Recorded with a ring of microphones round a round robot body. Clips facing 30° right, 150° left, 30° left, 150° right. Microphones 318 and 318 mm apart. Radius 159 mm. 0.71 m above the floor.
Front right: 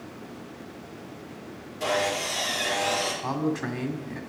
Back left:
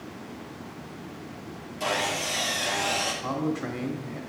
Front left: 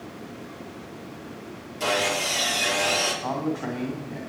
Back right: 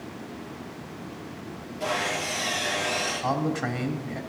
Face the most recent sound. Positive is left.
turn(degrees=-115)